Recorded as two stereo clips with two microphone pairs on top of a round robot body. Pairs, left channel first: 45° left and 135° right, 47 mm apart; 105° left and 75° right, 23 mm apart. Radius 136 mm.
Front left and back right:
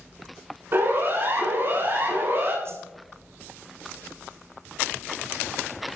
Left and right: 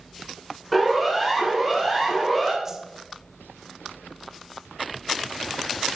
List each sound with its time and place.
0.7 s a siren: 165° right, 8.5 m
2.6 s a whoosh: 145° right, 2.5 m